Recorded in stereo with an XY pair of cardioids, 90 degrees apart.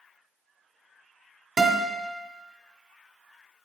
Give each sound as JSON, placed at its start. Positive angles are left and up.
{"t": 1.6, "sound": "a guitar", "azimuth_deg": -40, "distance_m": 1.9}